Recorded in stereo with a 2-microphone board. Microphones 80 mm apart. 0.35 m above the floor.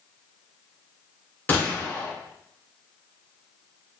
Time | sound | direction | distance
1.5 | a gunshot | 25° left (ahead or behind) | 1.4 m